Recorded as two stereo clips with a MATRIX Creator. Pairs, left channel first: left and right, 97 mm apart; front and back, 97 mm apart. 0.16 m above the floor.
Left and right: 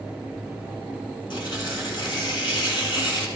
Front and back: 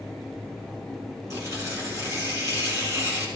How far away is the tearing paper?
About 3 m.